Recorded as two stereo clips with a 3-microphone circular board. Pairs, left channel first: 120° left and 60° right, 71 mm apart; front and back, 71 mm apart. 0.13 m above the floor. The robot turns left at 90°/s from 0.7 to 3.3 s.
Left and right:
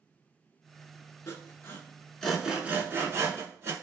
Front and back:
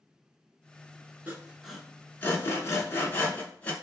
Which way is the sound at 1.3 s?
130° left.